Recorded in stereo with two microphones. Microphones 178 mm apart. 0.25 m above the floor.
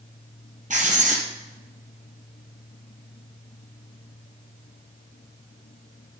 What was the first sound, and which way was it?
Writing, 50° right (ahead or behind).